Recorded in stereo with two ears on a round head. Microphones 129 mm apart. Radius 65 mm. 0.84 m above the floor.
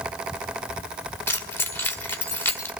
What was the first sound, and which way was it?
Keys jangling, 15° left (ahead or behind).